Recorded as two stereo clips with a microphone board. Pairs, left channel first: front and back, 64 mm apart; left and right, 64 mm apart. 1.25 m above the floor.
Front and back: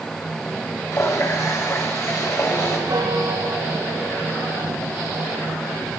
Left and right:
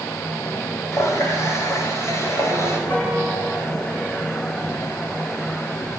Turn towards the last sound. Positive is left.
turn(degrees=155)